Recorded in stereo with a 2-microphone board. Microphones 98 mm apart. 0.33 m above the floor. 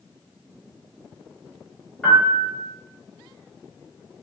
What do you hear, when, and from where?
2.0 s a piano: 10° left (ahead or behind), 0.8 m